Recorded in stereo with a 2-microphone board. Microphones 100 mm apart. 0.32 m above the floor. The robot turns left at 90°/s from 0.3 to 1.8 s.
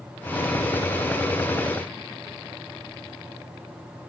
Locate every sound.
Only background noise.